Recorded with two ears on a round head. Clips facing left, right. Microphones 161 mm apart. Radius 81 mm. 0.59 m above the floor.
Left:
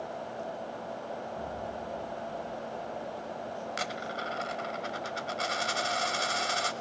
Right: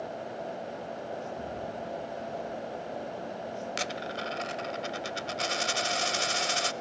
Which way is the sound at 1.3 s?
30° right (ahead or behind).